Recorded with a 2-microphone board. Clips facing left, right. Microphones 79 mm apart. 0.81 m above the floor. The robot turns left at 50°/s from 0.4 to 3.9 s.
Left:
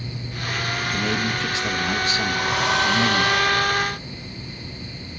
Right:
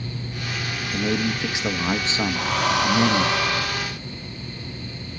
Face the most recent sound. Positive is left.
turn(degrees=-60)